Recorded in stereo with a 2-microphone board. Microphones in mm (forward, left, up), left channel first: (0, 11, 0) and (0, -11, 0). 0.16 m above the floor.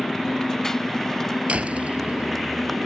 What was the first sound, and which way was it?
A motorcycle, 25° left (ahead or behind).